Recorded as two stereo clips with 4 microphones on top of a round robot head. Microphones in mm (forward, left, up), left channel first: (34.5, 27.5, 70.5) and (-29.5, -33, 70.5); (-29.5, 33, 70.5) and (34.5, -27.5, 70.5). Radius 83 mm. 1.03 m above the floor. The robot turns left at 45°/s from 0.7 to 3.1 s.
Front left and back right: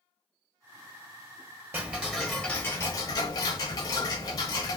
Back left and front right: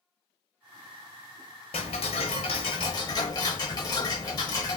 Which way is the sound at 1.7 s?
155° left.